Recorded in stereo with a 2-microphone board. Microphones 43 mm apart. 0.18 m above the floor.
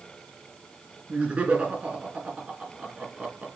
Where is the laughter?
30° right (ahead or behind), 3 m.